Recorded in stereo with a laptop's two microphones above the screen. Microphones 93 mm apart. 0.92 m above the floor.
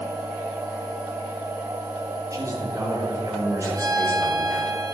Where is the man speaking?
35° right (ahead or behind), 3.5 m.